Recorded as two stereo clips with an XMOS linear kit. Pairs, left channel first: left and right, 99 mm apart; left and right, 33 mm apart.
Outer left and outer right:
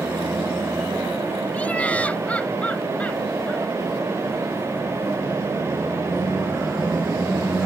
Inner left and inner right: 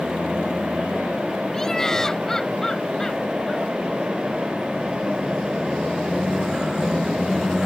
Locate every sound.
1.5 s laughter: 15° left (ahead or behind)